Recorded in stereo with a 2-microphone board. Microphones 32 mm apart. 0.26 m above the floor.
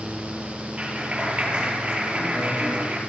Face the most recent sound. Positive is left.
turn(degrees=-35)  # may be behind; listen again after turning